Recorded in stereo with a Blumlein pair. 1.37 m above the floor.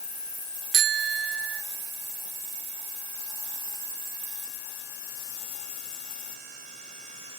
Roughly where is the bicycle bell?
Ahead right.